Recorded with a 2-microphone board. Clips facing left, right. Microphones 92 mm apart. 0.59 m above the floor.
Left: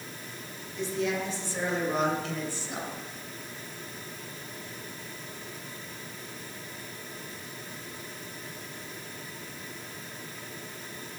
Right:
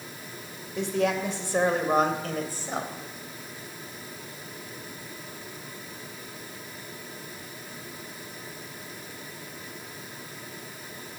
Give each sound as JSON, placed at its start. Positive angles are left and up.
{"t": 0.8, "sound": "a man speaking", "side_deg": -70, "distance_m": 2.5}